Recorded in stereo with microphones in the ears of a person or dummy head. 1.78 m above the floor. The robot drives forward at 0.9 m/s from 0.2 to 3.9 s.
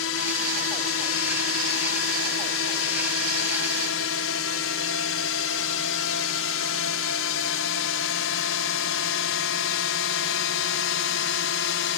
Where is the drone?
70° left (ahead or behind); by 12.0 s 65° left (ahead or behind).